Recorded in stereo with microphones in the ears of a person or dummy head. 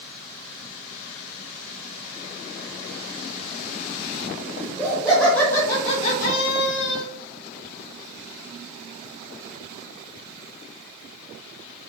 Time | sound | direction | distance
4.6 | laughter | 20° right (ahead or behind) | 0.8 m